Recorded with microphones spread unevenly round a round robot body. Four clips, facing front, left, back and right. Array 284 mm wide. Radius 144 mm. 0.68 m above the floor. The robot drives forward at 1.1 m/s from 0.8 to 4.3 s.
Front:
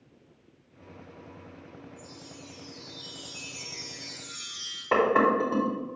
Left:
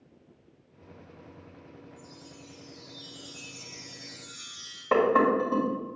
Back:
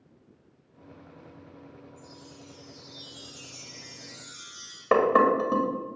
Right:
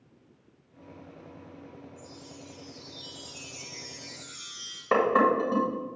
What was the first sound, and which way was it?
A chime, 140° right.